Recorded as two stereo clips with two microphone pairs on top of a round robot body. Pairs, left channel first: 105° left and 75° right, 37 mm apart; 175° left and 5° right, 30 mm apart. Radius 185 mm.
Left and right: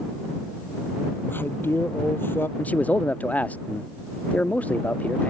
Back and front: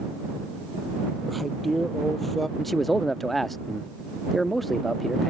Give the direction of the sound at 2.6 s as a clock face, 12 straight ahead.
9 o'clock.